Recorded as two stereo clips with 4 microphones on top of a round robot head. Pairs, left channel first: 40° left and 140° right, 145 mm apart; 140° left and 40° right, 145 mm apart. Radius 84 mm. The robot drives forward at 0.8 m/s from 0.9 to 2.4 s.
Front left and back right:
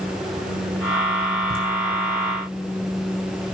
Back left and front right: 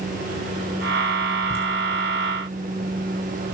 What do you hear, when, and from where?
1.5 s laughter: 145° right, 2.5 m; by 1.6 s 150° right, 2.5 m